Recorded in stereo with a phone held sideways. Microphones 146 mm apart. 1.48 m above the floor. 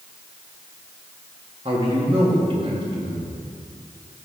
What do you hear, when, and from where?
1.6 s a man speaking: 40° right (ahead or behind), 2 m